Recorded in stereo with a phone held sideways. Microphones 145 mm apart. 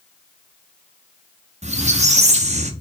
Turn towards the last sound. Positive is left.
turn(degrees=-50)  # may be behind; listen again after turning